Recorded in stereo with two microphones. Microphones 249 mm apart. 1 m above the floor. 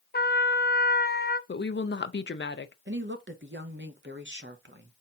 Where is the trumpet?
40° left (ahead or behind), 0.7 m.